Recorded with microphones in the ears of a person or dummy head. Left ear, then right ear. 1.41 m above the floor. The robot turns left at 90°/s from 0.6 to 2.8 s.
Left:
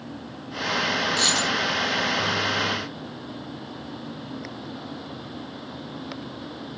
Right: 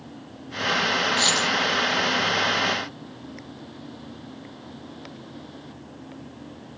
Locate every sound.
1.2 s a dropped coin: 20° left, 1.8 m; by 1.5 s 15° right, 1.8 m